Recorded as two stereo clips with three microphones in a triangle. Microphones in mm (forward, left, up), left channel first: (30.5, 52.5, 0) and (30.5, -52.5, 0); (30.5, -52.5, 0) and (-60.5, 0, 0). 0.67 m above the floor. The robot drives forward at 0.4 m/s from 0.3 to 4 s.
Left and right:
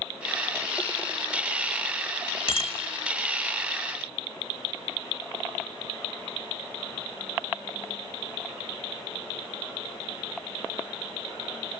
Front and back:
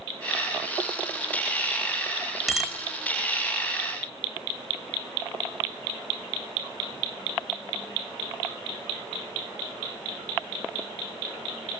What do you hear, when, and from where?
2.5 s a bicycle bell: 65° left, 2.5 m